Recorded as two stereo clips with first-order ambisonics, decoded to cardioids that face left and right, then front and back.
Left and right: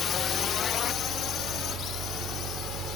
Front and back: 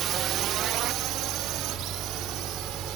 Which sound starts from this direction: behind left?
A drone, at 0.0 s.